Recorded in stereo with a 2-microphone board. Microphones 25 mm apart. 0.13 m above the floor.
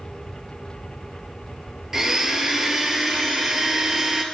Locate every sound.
1.9 s a blender: 20° right (ahead or behind), 0.7 m